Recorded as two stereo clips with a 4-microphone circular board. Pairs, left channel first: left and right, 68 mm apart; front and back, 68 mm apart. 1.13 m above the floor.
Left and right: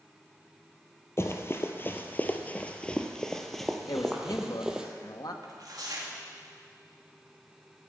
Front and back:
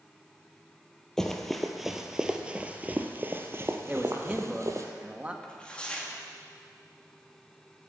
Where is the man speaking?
110° left, 1.5 m.